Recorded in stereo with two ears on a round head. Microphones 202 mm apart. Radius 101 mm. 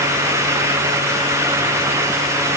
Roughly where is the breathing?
I don't hear breathing.